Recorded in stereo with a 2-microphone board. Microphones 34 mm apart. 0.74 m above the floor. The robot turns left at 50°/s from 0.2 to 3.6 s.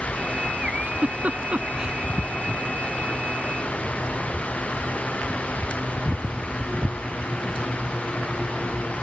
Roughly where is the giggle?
Right.